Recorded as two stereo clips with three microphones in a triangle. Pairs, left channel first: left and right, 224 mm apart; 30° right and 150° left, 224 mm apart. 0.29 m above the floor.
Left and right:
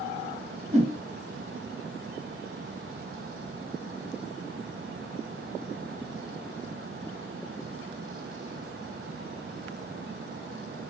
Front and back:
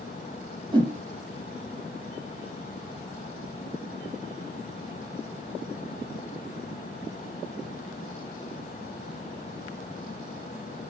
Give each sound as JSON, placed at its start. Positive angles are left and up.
{"t": 0.7, "sound": "a whoosh", "azimuth_deg": -140, "distance_m": 1.1}